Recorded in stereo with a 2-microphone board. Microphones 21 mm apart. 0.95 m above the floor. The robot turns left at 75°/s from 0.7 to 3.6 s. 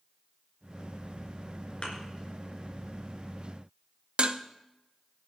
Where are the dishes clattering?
55° right (ahead or behind), 0.6 m.